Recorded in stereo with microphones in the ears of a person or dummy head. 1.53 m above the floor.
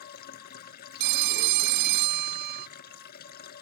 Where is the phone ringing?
55° right (ahead or behind).